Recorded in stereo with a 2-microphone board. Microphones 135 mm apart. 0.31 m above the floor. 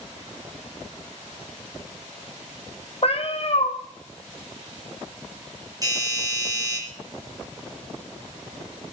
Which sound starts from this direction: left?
A cat meowing, at 3.0 s.